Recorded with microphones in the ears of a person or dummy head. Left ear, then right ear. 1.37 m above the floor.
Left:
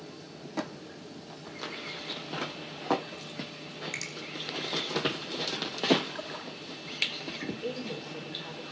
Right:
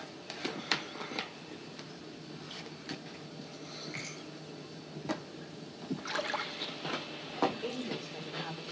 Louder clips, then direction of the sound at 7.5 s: Left 2 dB; 50° right (ahead or behind).